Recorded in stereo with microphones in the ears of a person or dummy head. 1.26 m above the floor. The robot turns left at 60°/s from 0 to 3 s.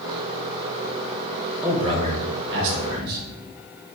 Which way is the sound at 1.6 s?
10° right.